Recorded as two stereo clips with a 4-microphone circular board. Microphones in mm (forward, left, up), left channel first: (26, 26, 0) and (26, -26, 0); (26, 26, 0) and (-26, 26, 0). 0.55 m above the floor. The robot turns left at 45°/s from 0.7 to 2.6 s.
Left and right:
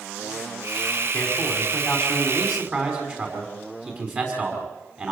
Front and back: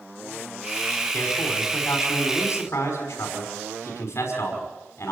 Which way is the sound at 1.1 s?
30° left.